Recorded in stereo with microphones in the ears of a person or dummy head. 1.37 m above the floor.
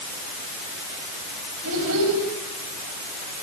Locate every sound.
1.6 s a child speaking: 75° right (ahead or behind), 7 m